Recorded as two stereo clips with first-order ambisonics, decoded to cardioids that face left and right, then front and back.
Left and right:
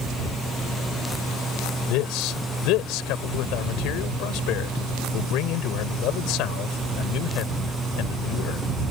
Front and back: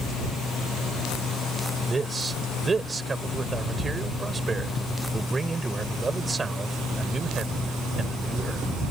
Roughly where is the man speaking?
Left.